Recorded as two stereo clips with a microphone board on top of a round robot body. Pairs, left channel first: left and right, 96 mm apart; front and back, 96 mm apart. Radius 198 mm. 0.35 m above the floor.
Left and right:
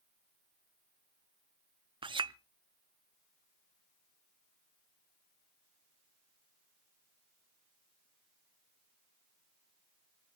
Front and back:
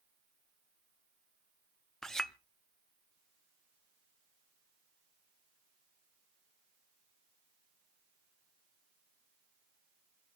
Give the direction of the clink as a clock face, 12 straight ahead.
3 o'clock.